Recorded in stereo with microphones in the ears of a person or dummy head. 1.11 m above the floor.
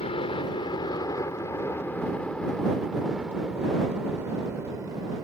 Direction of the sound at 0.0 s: 30° left (ahead or behind).